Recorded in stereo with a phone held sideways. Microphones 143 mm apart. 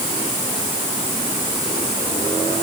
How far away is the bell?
No bell in this recording.